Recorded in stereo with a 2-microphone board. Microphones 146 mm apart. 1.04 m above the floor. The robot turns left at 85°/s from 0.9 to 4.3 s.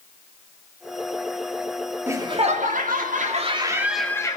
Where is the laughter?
15° right, 3 m; by 4.4 s 150° left, 3 m.